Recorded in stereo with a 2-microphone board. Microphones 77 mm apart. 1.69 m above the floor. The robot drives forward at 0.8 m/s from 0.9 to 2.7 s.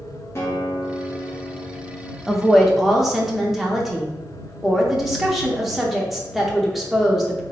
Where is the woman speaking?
Centre (ahead or behind), 0.5 m.